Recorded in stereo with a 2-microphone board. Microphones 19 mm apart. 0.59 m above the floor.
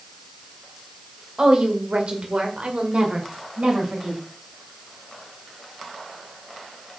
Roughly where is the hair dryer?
No hair dryer in this recording.